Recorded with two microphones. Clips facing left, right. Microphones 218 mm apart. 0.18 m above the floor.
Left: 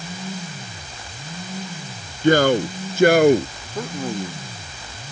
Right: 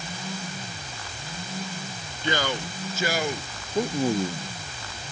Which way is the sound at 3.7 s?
15° right (ahead or behind).